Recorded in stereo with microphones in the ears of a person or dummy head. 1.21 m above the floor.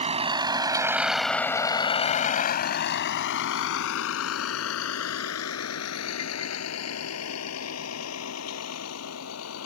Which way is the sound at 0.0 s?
30° right (ahead or behind).